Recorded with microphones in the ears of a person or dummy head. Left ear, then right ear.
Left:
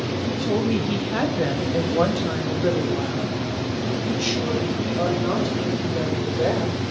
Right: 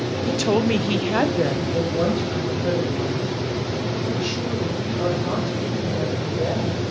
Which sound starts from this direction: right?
A woman speaking, at 0.2 s.